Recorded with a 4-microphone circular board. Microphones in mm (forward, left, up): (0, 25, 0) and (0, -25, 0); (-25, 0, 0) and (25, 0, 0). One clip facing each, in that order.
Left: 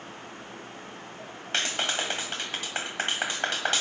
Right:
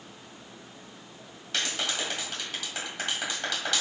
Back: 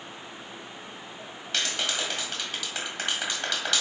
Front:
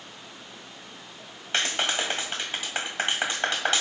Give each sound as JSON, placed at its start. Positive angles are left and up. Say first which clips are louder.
{"t": 1.5, "sound": "a clap", "louder": "left 2 dB, front 3 dB", "azimuth_deg": 50, "distance_m": 2.0}